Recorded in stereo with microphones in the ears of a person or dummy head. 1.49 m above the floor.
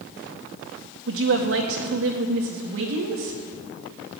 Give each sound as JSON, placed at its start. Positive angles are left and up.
{"t": 1.1, "sound": "a woman speaking", "side_deg": -75, "distance_m": 1.9}